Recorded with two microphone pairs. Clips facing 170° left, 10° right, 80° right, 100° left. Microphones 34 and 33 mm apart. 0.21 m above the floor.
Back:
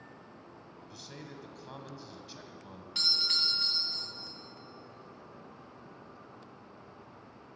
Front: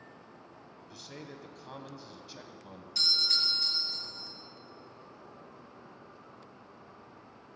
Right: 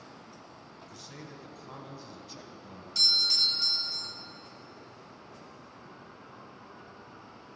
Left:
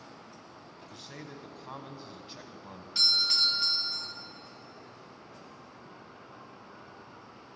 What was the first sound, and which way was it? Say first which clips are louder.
A man speaking: front 1 dB, left 2 dB; 75° left.